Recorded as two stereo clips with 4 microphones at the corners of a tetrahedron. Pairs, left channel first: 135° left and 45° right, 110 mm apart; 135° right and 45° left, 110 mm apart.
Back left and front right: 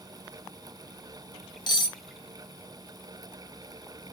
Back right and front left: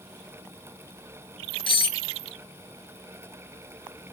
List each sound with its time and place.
1.7 s cutlery clinking: 175° right, 0.5 m